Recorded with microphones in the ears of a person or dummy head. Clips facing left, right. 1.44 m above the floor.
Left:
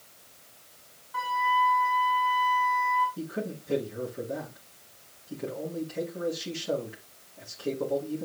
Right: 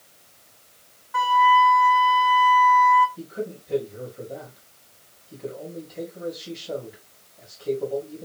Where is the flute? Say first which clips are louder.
Right 9 dB; 65° right (ahead or behind), 2.5 m.